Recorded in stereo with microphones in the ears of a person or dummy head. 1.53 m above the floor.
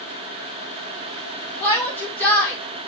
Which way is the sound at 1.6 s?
5° left (ahead or behind).